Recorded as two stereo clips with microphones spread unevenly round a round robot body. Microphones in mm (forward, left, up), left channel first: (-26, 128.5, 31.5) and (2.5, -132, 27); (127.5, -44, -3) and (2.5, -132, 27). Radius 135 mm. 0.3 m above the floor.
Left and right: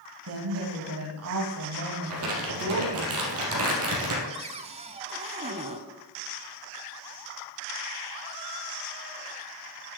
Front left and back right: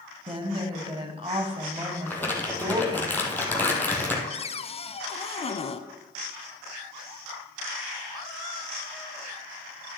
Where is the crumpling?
45° right, 3 m.